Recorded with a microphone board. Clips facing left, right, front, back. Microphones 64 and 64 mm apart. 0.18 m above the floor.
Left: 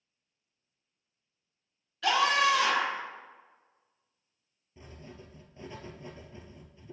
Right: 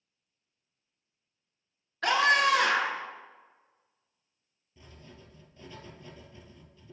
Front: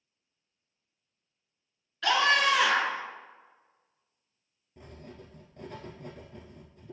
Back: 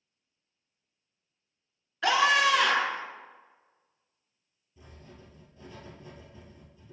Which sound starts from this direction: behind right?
A scream, at 2.0 s.